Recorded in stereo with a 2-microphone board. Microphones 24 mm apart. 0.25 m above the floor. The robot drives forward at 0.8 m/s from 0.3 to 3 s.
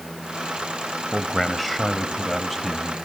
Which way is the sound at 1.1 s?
5° left (ahead or behind).